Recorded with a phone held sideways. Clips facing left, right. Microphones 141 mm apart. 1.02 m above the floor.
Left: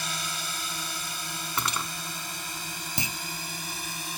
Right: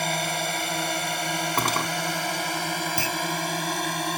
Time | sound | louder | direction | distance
0.0 | a drone | right 10 dB | 65° right (ahead or behind) | ?
1.6 | cutlery clinking | right 5 dB | 50° right (ahead or behind) | ?
3.0 | a clunk | right 7 dB | 20° left (ahead or behind) | ?